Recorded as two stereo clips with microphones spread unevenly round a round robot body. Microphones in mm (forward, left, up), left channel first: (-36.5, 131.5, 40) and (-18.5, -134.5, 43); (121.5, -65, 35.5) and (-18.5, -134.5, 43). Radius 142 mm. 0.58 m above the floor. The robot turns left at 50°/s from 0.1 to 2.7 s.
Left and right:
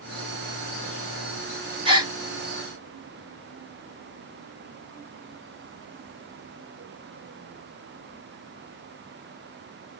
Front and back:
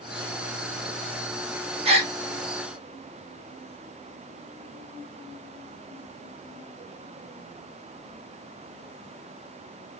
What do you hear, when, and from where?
1.9 s a gasp: 145° right, 1.5 m; by 2.1 s 160° right, 1.5 m